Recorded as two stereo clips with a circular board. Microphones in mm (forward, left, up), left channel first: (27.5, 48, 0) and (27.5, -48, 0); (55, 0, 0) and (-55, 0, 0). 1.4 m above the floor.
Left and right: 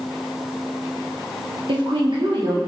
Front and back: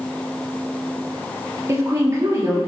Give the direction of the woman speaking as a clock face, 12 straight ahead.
4 o'clock.